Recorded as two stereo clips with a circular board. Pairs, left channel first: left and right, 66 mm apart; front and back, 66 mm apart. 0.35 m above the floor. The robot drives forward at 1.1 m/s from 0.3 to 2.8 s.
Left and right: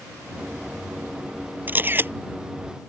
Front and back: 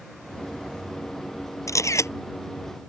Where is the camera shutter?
35° right; by 2.1 s 40° right.